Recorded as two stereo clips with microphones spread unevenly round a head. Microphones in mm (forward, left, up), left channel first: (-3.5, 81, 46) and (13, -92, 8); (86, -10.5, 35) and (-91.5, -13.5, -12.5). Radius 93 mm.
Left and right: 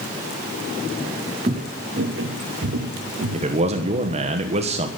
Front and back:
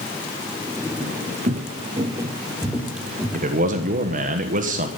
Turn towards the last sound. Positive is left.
turn(degrees=-135)